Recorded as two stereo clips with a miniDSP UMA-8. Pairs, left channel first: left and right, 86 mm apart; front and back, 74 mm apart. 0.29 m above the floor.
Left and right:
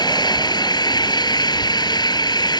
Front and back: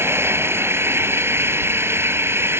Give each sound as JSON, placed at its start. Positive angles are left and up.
{"t": 0.0, "sound": "an engine running", "azimuth_deg": 125}